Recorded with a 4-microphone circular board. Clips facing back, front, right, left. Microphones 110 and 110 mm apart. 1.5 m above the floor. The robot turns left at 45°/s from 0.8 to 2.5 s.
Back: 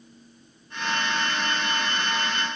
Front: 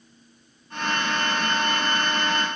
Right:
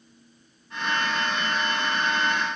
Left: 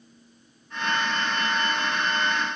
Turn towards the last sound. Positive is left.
No sound to turn to.